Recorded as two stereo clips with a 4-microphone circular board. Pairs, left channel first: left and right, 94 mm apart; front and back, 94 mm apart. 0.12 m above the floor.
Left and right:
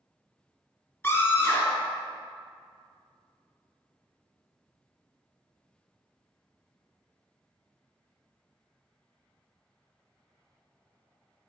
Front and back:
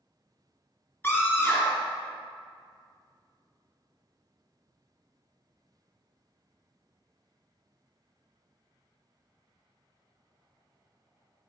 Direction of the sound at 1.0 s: 45° left.